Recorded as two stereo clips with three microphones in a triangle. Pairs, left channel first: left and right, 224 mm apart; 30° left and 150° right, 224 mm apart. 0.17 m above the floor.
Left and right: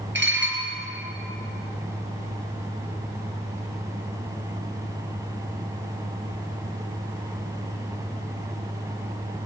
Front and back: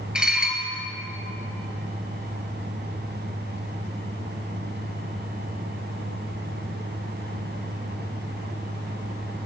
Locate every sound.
0.1 s dishes clattering: 65° right, 2.5 m